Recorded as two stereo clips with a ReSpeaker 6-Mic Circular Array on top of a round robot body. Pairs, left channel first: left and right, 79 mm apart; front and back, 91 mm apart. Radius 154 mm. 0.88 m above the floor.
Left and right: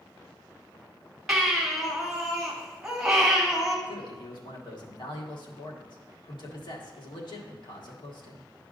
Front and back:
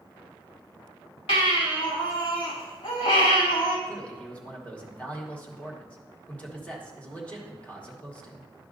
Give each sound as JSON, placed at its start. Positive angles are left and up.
{"t": 1.3, "sound": "a baby crying", "azimuth_deg": -5, "distance_m": 2.0}
{"t": 3.9, "sound": "a man speaking", "azimuth_deg": 75, "distance_m": 1.5}